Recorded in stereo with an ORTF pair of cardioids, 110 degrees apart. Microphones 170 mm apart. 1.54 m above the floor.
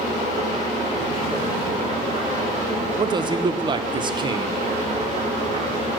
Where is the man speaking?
30° right, 1.0 m.